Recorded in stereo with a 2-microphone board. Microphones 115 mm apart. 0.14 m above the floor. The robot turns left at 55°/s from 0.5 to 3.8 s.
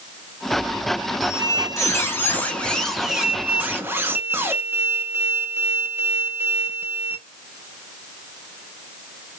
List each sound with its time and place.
1.2 s a squeak: 30° left (ahead or behind), 0.8 m; by 7.2 s 20° right (ahead or behind), 0.8 m